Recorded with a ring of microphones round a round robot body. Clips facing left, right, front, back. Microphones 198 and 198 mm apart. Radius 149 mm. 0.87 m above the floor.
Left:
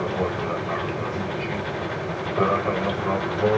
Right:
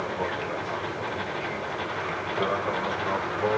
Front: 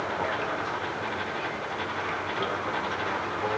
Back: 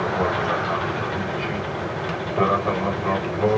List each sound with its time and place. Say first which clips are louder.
0.0 s an aircraft: left 5 dB, back 8 dB; 145° left